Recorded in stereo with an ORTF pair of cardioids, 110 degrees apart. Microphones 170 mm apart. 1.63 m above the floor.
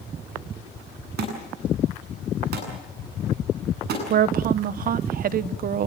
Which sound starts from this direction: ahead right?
A woman speaking, at 4.1 s.